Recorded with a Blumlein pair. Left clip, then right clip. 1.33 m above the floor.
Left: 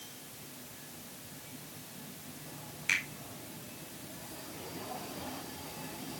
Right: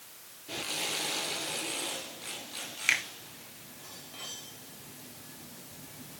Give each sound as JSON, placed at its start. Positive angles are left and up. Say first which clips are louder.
{"t": 2.9, "sound": "a finger snap", "louder": "right 4 dB", "azimuth_deg": -45, "distance_m": 3.0}